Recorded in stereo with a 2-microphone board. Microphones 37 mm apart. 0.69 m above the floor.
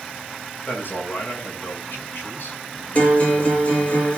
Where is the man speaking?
60° left (ahead or behind), 6.5 m.